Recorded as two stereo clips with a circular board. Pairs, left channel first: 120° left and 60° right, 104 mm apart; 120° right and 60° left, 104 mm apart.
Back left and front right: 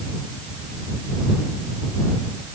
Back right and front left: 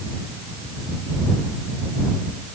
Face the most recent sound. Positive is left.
No sound to turn to.